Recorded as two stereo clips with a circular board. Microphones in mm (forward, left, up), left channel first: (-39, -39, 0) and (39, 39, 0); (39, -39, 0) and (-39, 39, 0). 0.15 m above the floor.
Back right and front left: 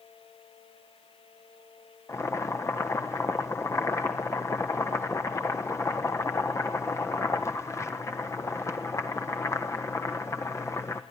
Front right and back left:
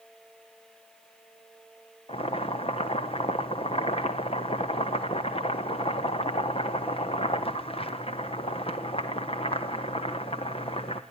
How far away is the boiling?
About 1.3 m.